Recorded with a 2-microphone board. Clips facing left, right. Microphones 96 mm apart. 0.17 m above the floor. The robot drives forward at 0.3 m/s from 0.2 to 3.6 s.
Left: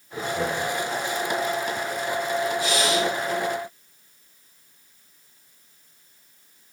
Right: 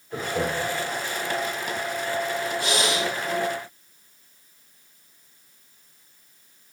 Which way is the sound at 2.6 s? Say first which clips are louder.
Left 2 dB; 65° right (ahead or behind).